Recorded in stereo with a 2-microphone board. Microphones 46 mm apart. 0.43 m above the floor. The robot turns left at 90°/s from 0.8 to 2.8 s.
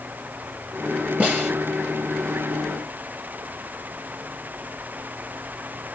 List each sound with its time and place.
1.2 s a snare drum: 30° right (ahead or behind), 4 m; by 1.5 s 55° right (ahead or behind), 4 m